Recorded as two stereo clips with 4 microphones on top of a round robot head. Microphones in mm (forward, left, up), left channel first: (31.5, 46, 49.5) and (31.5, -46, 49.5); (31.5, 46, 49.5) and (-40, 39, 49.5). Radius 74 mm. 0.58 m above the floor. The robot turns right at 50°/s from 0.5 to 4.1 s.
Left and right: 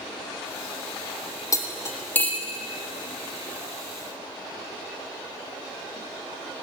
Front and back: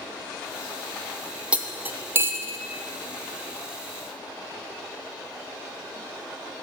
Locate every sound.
1.5 s cutlery clinking: 115° left, 0.5 m; by 2.6 s 170° left, 0.5 m